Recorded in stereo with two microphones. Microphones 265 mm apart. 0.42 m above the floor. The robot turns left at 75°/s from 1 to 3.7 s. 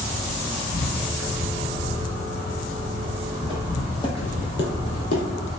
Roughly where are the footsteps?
Right.